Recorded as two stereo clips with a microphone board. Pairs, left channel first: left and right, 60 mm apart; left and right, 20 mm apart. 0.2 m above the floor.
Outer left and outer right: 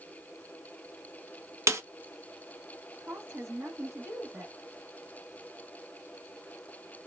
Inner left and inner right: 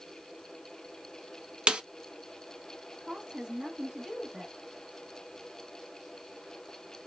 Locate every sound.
1.7 s a snare drum: 50° right (ahead or behind), 0.6 m
3.0 s a woman speaking: 40° right (ahead or behind), 1.2 m